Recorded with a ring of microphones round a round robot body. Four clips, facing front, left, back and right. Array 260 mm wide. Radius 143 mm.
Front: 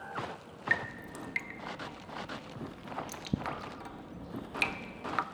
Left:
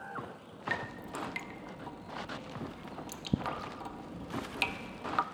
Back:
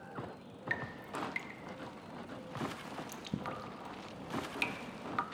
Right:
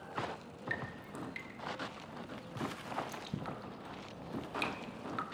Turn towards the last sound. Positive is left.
turn(degrees=60)